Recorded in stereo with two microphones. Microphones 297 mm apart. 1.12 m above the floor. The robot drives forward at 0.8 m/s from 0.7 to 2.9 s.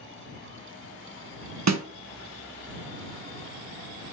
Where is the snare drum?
65° right (ahead or behind), 0.5 m; by 1.8 s 55° right (ahead or behind), 0.6 m.